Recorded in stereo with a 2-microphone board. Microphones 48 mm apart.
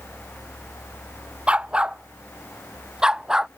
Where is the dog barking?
20° right (ahead or behind); by 3.5 s 10° right (ahead or behind).